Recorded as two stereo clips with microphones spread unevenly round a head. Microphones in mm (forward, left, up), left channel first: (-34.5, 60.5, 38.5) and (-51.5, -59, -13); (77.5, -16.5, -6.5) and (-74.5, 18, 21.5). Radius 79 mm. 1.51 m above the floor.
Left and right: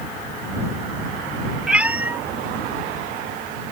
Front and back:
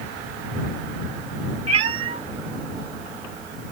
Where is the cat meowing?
155° left; by 3.7 s 170° right.